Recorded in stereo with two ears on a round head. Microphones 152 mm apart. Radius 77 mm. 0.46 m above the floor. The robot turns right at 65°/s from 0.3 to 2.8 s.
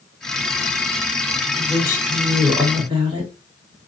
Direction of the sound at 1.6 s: 140° left.